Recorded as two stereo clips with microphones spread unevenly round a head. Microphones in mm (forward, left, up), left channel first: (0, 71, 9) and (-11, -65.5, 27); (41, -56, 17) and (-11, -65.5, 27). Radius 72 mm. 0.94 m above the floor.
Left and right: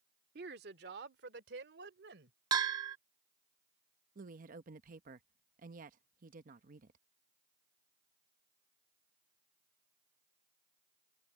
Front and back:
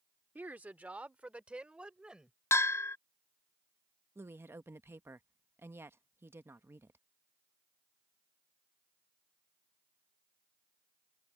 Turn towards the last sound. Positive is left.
turn(degrees=-120)